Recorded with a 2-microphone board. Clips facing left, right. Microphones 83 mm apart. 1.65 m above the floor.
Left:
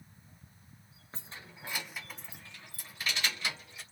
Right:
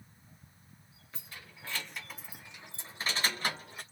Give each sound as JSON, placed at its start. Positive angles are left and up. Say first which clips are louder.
{"t": 1.1, "sound": "keys jangling", "louder": "left 2 dB", "side_deg": 35, "distance_m": 0.9}